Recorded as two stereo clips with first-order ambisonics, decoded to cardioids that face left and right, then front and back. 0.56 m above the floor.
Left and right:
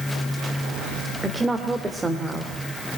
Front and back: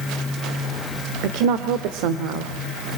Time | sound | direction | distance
1.2 | a woman speaking | 170° right | 1.5 m